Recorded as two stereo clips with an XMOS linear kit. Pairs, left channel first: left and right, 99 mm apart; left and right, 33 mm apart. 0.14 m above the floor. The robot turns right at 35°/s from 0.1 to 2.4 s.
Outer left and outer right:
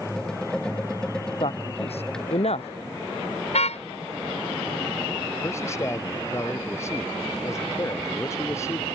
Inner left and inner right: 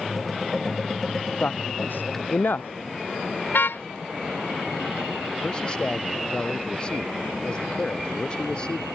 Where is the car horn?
85° left.